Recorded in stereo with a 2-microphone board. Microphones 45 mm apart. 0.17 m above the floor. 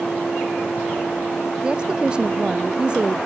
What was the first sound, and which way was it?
A woman speaking, 20° right (ahead or behind).